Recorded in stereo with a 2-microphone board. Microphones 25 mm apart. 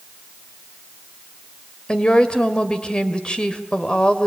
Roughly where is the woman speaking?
Left.